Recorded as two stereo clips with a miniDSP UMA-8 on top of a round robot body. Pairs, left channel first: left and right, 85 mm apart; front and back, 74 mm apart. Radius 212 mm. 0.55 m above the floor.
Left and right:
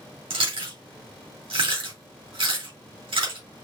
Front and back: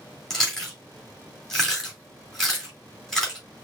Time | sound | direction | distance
0.3 | chewing | 85° right | 3 m